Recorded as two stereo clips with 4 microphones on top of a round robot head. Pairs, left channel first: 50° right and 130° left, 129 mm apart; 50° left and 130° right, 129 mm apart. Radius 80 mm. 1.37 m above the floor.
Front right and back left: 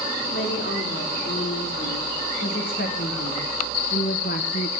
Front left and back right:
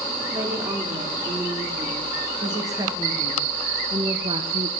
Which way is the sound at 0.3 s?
60° right.